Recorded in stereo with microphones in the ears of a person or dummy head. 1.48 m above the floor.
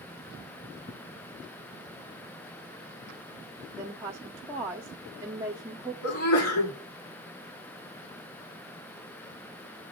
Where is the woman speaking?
10° right (ahead or behind), 0.7 m.